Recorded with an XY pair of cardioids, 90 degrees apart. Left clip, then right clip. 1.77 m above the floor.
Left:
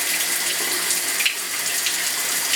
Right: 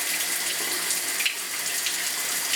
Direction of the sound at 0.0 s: 35° left.